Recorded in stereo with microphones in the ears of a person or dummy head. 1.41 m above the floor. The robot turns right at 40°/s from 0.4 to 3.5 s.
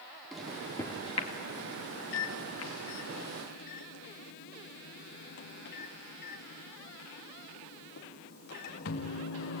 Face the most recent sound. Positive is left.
turn(degrees=55)  # may be behind; listen again after turning